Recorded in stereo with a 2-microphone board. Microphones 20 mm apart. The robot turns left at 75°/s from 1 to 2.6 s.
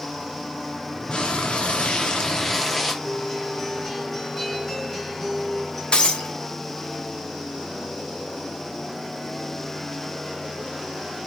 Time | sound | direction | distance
1.1 | frying | 130° left | 1.9 m
3.0 | a guitar | 15° left (ahead or behind) | 2.5 m
5.9 | breaking glass | 60° left (ahead or behind) | 1.8 m